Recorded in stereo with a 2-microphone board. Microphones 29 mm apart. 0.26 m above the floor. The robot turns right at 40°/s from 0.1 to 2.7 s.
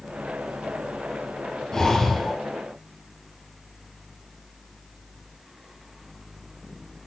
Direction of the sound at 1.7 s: 20° left (ahead or behind).